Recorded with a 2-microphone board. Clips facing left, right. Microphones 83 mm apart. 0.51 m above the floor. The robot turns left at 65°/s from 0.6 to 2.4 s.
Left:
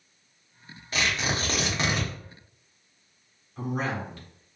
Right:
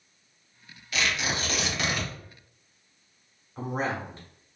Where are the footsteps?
No footsteps in this recording.